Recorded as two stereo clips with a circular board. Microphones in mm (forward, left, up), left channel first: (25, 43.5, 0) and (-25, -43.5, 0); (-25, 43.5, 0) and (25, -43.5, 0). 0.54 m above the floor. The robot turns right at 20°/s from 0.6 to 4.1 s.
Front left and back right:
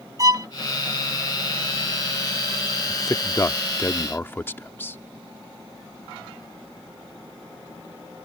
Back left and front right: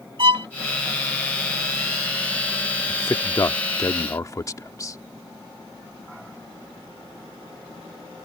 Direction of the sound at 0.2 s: 75° right.